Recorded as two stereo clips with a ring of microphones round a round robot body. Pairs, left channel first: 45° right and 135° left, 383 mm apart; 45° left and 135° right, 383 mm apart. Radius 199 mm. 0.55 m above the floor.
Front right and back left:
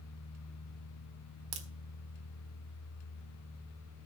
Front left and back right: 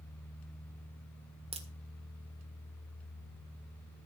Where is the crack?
150° left, 1.6 m.